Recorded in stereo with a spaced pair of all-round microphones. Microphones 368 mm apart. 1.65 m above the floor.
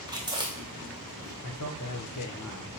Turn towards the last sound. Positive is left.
turn(degrees=55)  # may be behind; listen again after turning